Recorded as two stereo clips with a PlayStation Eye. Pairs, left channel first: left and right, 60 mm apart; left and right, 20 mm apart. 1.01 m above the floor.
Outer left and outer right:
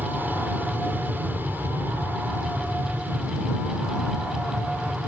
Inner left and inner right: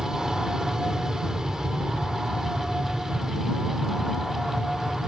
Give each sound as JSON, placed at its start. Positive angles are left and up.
{"t": 0.0, "sound": "an aircraft", "side_deg": -35}